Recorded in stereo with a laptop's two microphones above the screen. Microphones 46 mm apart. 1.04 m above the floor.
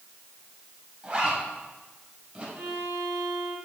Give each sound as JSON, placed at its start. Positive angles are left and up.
{"t": 1.0, "sound": "a zipper", "side_deg": -25, "distance_m": 3.5}
{"t": 2.5, "sound": "a violin", "side_deg": -70, "distance_m": 2.5}